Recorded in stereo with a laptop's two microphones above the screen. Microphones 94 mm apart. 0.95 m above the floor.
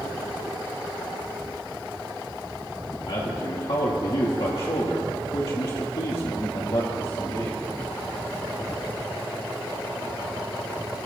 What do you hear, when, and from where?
3.1 s a man speaking: 75° left (ahead or behind), 1.8 m